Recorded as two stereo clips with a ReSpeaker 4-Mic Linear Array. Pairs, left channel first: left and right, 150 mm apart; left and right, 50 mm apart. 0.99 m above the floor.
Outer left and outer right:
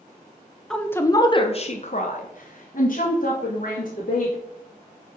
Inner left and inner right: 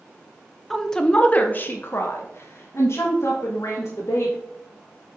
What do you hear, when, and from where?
0.7 s a woman speaking: 5° left (ahead or behind), 0.7 m; by 4.3 s 65° left (ahead or behind), 2 m